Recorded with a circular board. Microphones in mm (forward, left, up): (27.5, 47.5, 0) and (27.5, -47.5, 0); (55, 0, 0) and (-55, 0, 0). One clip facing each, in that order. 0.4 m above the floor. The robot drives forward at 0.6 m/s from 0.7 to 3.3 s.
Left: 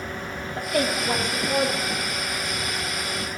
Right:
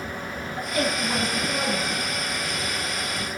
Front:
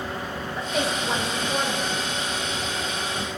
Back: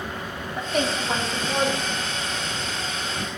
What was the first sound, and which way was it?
A woman speaking, 90° left.